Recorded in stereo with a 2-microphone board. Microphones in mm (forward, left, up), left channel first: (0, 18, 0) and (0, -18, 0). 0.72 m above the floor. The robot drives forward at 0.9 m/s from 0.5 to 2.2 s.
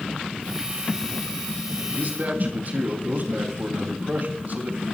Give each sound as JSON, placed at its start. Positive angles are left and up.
{"t": 1.9, "sound": "a man speaking", "side_deg": -55, "distance_m": 4.0}